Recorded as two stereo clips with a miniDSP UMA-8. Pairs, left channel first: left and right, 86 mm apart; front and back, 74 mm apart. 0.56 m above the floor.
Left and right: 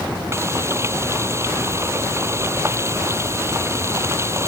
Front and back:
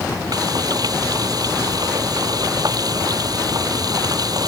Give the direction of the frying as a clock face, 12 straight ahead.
5 o'clock.